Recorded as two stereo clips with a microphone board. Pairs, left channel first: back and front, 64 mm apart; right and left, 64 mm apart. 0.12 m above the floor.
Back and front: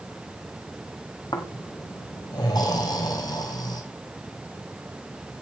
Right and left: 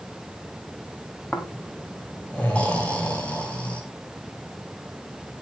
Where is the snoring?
160° right, 2.5 m.